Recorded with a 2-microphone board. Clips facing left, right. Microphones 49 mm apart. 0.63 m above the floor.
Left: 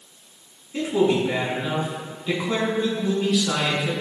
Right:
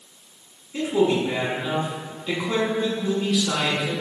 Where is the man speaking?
Centre (ahead or behind), 7 m.